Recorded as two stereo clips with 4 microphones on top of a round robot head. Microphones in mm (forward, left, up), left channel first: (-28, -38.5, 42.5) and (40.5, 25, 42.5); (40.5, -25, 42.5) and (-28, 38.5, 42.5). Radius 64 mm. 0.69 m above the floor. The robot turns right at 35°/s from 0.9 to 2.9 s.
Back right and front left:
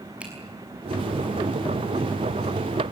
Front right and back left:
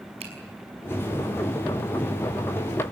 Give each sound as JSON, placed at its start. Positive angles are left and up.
{"t": 0.2, "sound": "a finger snap", "azimuth_deg": 120, "distance_m": 5.5}